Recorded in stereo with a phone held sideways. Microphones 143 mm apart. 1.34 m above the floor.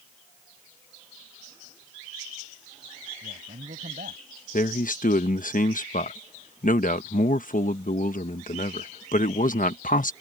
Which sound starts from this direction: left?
A man speaking, at 4.5 s.